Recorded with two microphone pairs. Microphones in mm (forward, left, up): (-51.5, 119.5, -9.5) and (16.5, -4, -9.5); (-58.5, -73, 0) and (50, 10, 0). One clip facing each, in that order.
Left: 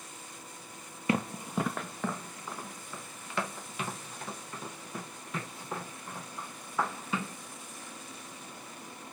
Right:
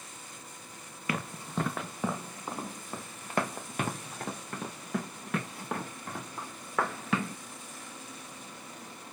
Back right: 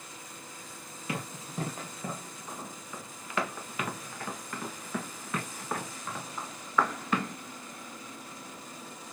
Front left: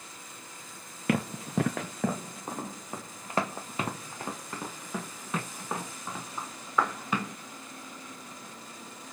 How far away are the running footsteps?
About 0.8 m.